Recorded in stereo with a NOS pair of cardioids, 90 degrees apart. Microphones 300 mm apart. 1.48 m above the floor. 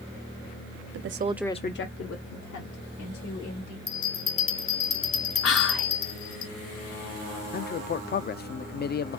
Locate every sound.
0.9 s a woman speaking: 55° right, 0.8 m; by 3.8 s 75° left, 3.5 m
3.9 s a bell: 45° left, 1.9 m
5.4 s whispering: 50° left, 3 m
7.5 s a man speaking: 35° left, 0.6 m